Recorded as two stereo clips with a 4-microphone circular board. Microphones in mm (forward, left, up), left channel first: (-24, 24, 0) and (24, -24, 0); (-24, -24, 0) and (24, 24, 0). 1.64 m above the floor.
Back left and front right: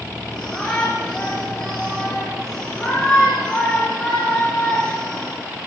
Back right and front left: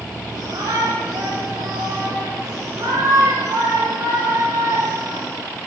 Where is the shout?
55° left, 4.5 m.